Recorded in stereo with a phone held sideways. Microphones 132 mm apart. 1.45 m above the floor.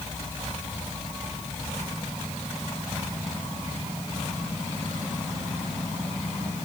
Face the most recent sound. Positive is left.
No sound to turn to.